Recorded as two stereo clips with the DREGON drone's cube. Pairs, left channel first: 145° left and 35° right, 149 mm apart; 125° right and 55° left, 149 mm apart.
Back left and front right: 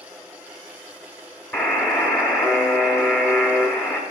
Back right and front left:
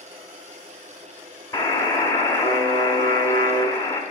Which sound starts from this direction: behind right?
A buzzer, at 1.5 s.